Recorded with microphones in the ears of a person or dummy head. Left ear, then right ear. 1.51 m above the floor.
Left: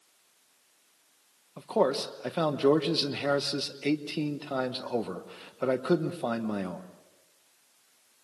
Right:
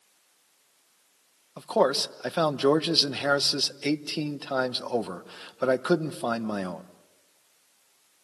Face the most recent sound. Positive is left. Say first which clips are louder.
# right 3 dB
turn(degrees=-25)  # may be behind; listen again after turning